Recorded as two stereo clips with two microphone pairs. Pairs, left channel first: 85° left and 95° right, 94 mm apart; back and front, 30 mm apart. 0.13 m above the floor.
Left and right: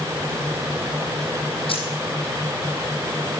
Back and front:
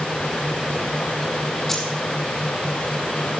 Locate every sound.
1.7 s keys jangling: 95° left, 3 m